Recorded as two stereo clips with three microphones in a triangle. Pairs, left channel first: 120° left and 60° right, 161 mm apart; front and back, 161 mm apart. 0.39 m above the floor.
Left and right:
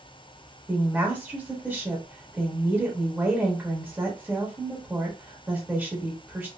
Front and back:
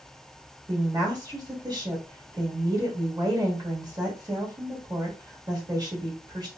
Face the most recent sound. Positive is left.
turn(degrees=-135)